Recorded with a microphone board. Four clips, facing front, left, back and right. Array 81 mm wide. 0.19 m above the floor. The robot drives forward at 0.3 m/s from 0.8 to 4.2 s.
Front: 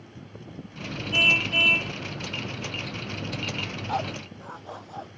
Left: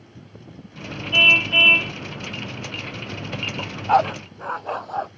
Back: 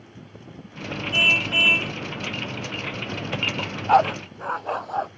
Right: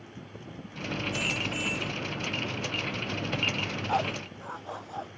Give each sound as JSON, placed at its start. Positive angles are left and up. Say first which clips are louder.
{"t": 1.1, "sound": "a car horn", "louder": "left 11 dB, back 1 dB", "azimuth_deg": 95}
{"t": 3.6, "sound": "a dog barking", "louder": "left 13 dB, back 14 dB", "azimuth_deg": 140}